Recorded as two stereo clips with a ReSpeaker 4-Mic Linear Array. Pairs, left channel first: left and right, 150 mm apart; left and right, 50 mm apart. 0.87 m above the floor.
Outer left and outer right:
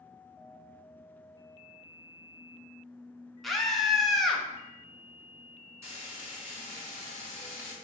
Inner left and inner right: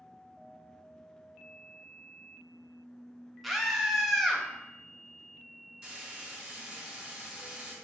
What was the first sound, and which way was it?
A scream, centre (ahead or behind).